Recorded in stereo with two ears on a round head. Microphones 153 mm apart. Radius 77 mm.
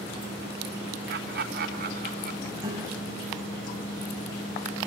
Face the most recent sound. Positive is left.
turn(degrees=-20)  # may be behind; listen again after turning